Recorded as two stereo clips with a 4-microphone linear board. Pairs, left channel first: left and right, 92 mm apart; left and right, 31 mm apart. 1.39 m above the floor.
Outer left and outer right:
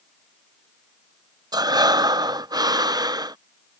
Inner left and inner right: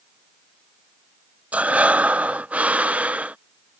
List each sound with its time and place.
1.5 s breathing: 45° right (ahead or behind)